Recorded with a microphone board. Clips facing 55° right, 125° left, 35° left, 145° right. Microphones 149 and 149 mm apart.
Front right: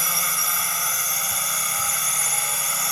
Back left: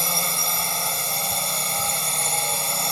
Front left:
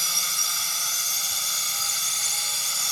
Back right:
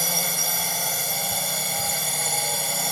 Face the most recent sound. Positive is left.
turn(degrees=-175)